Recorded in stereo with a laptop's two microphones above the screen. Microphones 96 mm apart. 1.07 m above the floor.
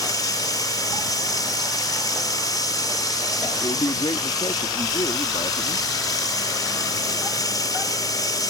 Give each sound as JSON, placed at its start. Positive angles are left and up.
{"t": 0.0, "sound": "running water", "side_deg": 40}
{"t": 3.6, "sound": "a man speaking", "side_deg": 55}